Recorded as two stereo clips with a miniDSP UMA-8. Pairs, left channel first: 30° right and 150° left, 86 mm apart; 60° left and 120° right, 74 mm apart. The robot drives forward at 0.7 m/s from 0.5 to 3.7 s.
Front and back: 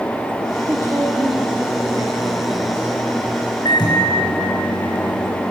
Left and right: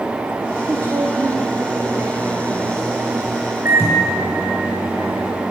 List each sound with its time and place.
0.7 s a woman speaking: 165° right, 1.4 m; by 2.9 s 175° right, 3 m
3.6 s a microwave: 65° right, 5 m